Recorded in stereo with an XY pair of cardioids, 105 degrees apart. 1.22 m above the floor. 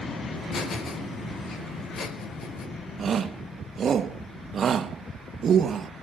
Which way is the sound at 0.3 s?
55° left.